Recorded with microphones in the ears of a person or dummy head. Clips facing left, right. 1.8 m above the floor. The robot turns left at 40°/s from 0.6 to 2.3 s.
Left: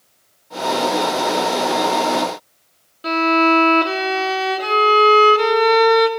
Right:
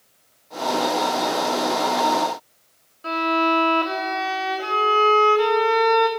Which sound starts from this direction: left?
A violin, at 3.0 s.